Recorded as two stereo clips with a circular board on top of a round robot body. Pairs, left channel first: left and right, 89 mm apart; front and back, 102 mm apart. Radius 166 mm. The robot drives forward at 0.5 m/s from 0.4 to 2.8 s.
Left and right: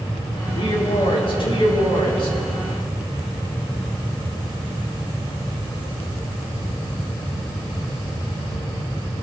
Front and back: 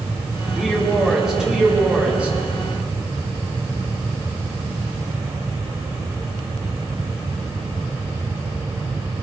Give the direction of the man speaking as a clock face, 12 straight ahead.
9 o'clock.